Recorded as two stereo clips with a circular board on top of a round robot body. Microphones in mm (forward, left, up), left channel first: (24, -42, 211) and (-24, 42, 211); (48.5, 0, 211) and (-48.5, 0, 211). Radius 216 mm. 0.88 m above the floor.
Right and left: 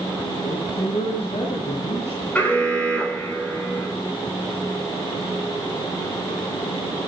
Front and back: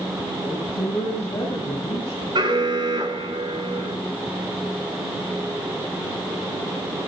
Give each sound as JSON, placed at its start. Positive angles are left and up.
{"t": 0.4, "sound": "a woman speaking", "azimuth_deg": -60, "distance_m": 8.0}
{"t": 2.4, "sound": "an alarm", "azimuth_deg": -135, "distance_m": 3.0}